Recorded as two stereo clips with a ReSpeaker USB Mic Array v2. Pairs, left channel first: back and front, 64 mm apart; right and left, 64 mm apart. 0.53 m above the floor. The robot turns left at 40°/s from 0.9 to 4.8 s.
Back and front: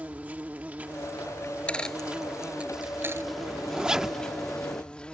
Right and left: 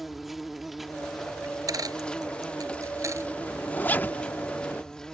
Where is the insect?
5° left; by 5.2 s 150° right.